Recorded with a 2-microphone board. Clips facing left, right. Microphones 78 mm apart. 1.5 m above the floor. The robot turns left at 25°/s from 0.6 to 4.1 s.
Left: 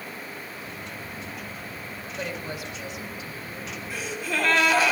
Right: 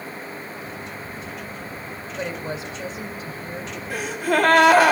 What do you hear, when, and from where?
2.2 s a woman speaking: 20° right, 2.5 m; by 3.8 s 60° right, 2.5 m
3.9 s a gasp: 60° right (ahead or behind), 1.9 m